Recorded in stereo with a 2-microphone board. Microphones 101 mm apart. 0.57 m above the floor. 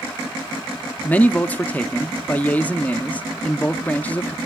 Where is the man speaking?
15° left (ahead or behind), 0.6 m.